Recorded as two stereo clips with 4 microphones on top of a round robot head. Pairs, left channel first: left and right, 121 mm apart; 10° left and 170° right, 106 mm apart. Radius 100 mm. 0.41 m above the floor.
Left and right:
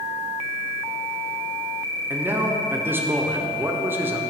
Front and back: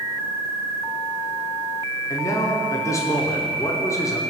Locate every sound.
2.1 s a man speaking: 30° right, 1.1 m